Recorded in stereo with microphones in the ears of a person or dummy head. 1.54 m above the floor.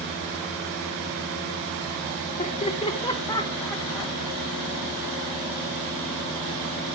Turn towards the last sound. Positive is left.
turn(degrees=0)  # may be behind; listen again after turning